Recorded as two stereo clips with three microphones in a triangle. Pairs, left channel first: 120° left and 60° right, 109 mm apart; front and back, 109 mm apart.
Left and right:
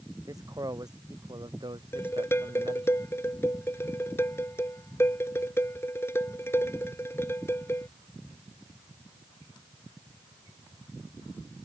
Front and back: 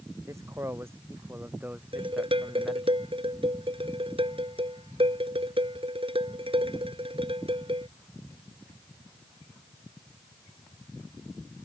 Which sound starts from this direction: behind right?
A man speaking, at 0.3 s.